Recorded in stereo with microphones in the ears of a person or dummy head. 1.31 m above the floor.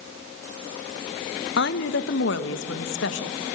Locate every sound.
1.6 s a woman speaking: 65° left (ahead or behind), 1.3 m; by 3.5 s 70° left (ahead or behind), 2.5 m